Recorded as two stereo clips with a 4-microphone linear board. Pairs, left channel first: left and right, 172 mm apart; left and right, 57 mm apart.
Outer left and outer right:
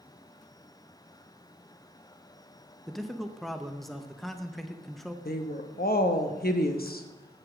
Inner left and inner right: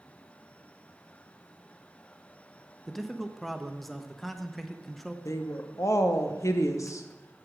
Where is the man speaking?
Centre (ahead or behind), 0.6 m.